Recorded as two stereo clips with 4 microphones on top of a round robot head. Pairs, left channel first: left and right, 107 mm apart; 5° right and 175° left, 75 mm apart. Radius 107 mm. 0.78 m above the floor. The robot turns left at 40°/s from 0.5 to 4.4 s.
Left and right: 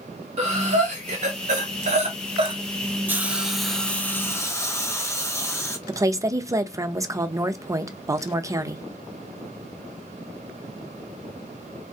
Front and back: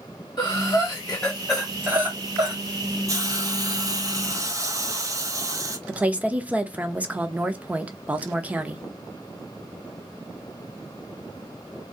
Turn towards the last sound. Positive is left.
turn(degrees=-125)